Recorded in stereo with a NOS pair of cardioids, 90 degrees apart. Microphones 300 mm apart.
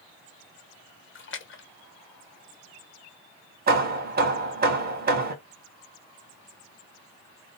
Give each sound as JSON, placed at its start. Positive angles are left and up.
{"t": 1.1, "sound": "a splash", "azimuth_deg": 40, "distance_m": 0.7}
{"t": 3.7, "sound": "hammering", "azimuth_deg": -30, "distance_m": 1.1}